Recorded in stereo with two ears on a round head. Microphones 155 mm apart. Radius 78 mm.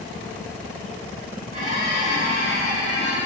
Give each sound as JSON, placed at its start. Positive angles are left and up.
{"t": 1.5, "sound": "a squeak", "side_deg": -45, "distance_m": 1.9}